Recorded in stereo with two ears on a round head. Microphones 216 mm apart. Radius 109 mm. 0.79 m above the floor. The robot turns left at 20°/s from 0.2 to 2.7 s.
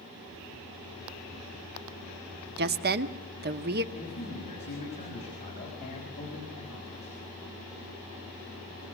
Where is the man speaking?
25° left (ahead or behind), 5.5 m.